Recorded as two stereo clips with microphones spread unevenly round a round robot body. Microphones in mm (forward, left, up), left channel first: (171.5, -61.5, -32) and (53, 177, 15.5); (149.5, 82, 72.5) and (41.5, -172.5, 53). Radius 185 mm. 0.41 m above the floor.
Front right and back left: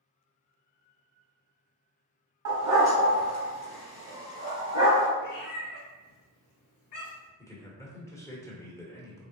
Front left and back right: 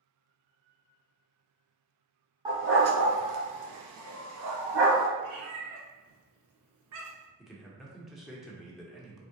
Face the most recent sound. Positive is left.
turn(degrees=-35)